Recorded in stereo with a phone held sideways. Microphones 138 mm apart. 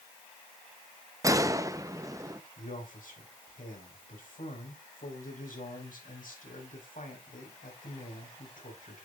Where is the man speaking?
75° left (ahead or behind), 4.5 m.